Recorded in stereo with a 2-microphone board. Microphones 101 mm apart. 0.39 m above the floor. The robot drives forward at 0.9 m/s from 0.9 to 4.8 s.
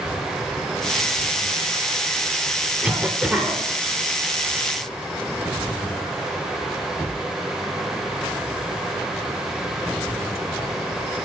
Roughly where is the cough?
Centre.